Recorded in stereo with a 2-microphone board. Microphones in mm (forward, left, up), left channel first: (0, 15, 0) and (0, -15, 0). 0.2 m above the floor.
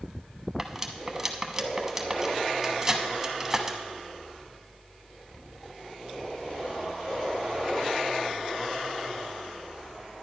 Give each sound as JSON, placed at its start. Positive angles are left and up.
{"t": 0.6, "sound": "cutlery clinking", "side_deg": -15, "distance_m": 0.8}